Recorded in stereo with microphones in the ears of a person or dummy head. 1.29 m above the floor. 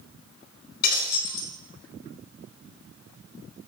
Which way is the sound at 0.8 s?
60° left (ahead or behind).